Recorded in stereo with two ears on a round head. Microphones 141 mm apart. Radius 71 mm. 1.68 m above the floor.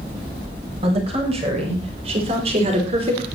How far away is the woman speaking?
About 7.5 m.